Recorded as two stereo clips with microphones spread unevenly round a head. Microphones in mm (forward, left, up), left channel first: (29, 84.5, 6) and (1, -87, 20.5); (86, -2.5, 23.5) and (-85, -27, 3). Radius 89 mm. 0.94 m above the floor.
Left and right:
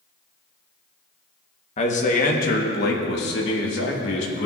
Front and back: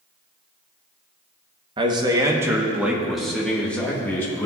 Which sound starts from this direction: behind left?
A man speaking, at 1.8 s.